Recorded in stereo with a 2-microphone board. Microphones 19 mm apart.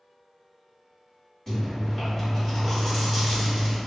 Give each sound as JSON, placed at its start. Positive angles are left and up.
{"t": 1.5, "sound": "chewing", "side_deg": 20, "distance_m": 1.7}